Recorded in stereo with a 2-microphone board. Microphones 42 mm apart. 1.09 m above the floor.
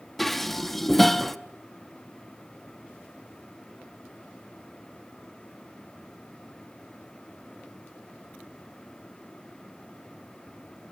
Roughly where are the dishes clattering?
Centre.